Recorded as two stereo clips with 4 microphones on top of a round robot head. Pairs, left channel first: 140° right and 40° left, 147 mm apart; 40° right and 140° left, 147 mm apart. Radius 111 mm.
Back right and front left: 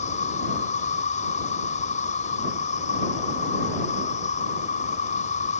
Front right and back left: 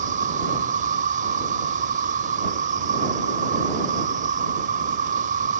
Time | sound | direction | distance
0.0 | an insect | 175° left | ?